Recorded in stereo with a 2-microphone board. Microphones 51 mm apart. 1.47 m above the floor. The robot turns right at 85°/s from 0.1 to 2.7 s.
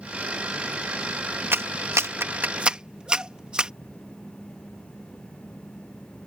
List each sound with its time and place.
1.5 s a clap: 45° right (ahead or behind); by 3.7 s 20° right (ahead or behind)